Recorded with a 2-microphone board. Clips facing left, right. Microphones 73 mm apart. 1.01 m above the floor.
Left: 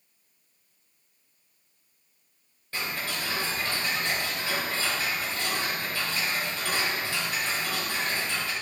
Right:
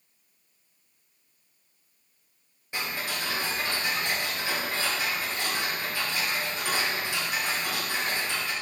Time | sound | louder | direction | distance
2.7 | ticking | even | 15° right (ahead or behind) | 3 m